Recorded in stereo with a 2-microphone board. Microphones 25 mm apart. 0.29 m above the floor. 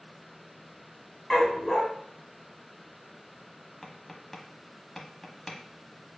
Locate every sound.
1.3 s a dog barking: 10° left (ahead or behind), 0.9 m
3.8 s tapping: 10° left (ahead or behind), 0.8 m